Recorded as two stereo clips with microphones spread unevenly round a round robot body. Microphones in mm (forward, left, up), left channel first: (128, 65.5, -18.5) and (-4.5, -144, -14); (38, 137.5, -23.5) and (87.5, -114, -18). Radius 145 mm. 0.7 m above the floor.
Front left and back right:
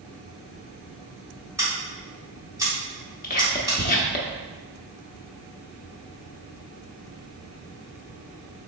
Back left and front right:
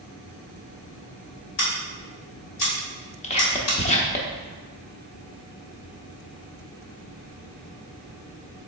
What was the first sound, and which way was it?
Scissors, 155° left.